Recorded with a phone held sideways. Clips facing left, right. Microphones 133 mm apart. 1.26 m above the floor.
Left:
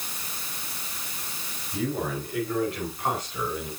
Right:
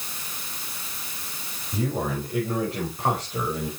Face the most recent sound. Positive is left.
turn(degrees=-35)  # may be behind; listen again after turning